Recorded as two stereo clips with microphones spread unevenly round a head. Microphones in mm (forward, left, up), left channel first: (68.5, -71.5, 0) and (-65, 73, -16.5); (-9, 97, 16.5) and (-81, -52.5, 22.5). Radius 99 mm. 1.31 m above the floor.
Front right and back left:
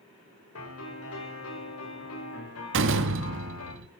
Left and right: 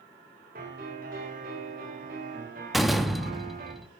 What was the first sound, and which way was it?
A piano, 65° right.